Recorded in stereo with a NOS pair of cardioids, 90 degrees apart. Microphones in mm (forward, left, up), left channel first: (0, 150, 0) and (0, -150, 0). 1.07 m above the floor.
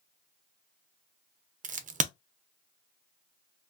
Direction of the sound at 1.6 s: 25° right.